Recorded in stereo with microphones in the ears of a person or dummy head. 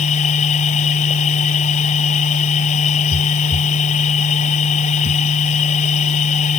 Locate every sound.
0.0 s a machine running: 40° left (ahead or behind)